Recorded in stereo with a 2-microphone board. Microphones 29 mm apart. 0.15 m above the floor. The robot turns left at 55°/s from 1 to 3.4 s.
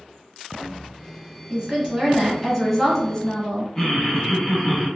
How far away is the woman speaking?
About 1.3 m.